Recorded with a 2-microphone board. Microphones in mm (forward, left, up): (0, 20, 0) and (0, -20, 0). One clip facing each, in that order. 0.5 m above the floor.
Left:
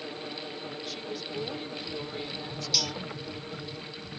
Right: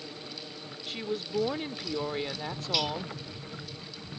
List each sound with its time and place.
0.9 s a woman speaking: 35° right (ahead or behind)
2.7 s cutlery clinking: 20° right (ahead or behind)